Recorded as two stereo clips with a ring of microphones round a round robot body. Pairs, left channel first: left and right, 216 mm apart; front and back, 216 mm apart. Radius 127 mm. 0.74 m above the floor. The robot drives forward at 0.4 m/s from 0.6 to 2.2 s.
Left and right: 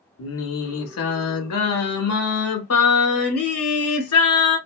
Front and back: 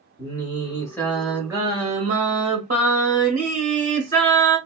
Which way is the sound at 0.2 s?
70° left.